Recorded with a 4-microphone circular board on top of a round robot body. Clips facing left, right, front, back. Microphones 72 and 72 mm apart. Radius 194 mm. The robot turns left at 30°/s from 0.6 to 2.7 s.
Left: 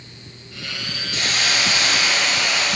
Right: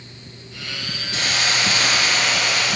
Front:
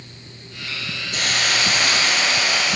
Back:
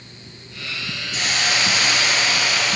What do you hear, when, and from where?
1.1 s a hiss: 25° right, 3 m; by 2.8 s 70° right, 3 m